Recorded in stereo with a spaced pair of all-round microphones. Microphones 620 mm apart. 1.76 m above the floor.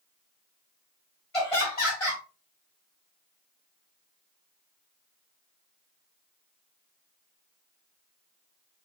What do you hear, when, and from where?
1.3 s laughter: 55° left (ahead or behind), 1.9 m